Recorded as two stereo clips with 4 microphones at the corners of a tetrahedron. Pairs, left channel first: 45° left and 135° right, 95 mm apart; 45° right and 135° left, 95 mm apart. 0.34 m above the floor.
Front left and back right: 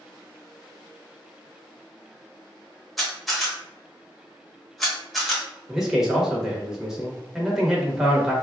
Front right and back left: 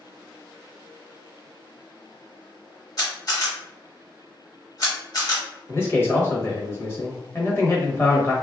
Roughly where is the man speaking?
Ahead right.